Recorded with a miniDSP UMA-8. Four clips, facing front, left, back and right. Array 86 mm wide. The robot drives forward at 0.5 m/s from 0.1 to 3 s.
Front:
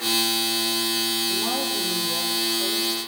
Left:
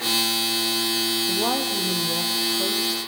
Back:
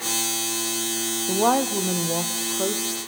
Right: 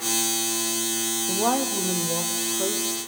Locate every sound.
1.3 s a woman speaking: 175° right, 0.9 m